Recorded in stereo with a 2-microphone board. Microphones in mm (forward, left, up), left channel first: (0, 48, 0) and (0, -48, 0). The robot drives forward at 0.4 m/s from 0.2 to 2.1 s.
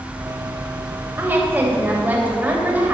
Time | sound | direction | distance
1.2 | a woman speaking | 20° right (ahead or behind) | 2.5 m